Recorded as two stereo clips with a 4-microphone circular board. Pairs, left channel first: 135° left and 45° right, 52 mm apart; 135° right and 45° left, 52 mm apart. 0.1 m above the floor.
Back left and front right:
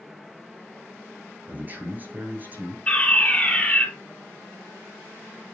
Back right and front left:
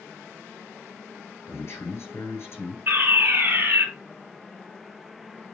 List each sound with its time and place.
1.5 s a man speaking: 95° right, 6 m
2.9 s a fire alarm: 80° left, 3.5 m